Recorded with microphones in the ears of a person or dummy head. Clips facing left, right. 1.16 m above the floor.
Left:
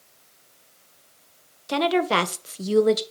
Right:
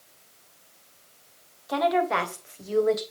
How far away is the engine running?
No engine running in this recording.